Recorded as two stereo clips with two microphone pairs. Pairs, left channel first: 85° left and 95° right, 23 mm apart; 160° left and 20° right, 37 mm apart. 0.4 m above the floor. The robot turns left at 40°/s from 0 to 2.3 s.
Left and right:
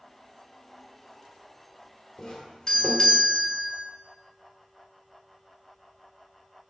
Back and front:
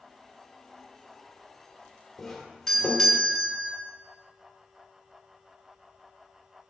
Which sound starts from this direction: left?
A doorbell, at 2.2 s.